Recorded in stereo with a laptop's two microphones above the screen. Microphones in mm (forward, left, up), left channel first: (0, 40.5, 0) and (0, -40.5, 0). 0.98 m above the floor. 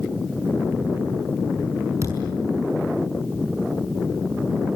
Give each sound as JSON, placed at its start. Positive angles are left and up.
{"t": 2.0, "sound": "a thud", "side_deg": -40, "distance_m": 6.0}